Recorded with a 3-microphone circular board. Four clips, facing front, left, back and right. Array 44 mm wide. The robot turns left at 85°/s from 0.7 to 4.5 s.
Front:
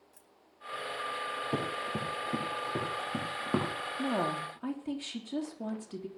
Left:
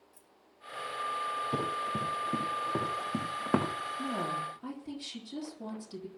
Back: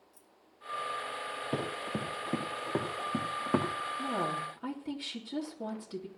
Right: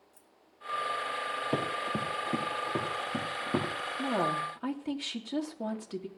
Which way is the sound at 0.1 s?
5° right.